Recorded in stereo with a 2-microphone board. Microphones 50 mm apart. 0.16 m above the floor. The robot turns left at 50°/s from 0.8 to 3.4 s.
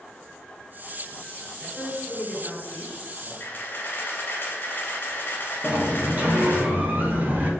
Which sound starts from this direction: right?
A sliding door, at 5.6 s.